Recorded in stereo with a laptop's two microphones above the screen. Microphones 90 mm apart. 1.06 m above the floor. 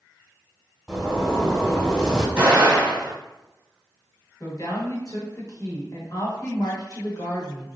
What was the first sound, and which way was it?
A zipper, 10° left (ahead or behind).